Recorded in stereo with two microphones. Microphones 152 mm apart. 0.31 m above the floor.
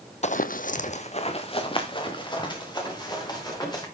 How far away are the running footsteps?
About 0.6 m.